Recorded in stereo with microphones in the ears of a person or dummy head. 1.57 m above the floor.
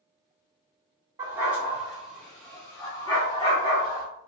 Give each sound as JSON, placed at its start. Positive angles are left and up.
{"t": 1.2, "sound": "a dog barking", "side_deg": -20, "distance_m": 1.3}